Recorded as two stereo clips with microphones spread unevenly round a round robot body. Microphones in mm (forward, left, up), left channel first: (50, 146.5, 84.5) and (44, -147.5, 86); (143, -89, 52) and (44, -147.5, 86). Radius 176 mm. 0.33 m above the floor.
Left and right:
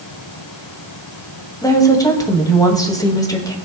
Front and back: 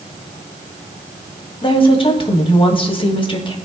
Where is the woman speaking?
10° left, 2 m.